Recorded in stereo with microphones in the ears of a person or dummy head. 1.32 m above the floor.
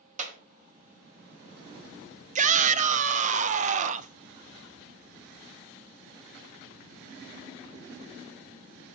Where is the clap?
45° right (ahead or behind), 1.1 m.